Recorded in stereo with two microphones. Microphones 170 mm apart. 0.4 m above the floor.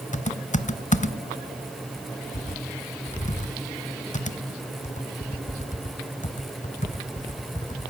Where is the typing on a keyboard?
45° left (ahead or behind), 0.6 m.